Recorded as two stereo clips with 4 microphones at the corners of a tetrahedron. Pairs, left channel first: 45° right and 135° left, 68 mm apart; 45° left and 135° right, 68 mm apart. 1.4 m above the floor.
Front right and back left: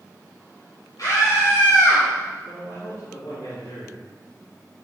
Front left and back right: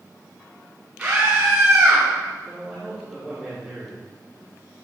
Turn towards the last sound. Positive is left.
turn(degrees=-60)